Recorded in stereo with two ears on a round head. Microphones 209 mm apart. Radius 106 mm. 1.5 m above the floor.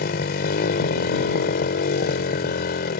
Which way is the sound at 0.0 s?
40° left (ahead or behind).